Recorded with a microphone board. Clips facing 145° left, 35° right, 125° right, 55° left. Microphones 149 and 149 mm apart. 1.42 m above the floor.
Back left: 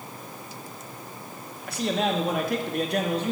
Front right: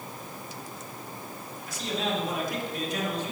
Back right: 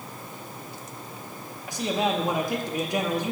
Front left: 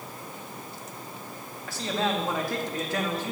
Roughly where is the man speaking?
Behind.